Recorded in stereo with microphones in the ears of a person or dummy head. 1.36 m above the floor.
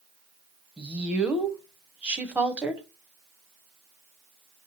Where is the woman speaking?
5° right (ahead or behind), 0.6 m.